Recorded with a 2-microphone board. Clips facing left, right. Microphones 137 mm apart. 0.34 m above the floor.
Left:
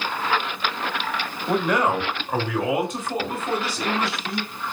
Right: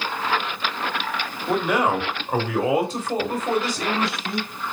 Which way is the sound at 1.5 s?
Centre (ahead or behind).